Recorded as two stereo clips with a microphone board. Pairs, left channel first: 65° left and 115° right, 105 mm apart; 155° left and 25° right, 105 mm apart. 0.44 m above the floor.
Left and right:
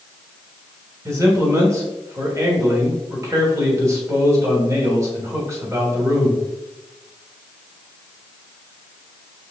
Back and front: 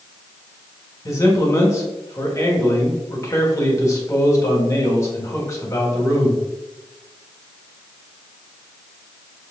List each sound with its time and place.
1.1 s a man speaking: 160° right, 1.4 m